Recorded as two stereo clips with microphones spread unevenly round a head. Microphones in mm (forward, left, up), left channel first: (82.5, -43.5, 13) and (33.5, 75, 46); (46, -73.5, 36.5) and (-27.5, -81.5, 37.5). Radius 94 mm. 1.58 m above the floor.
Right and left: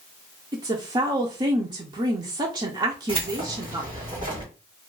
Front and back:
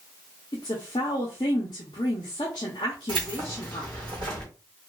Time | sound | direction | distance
0.5 | a woman speaking | 60° left | 0.7 m
3.1 | keys jangling | 170° left | 1.8 m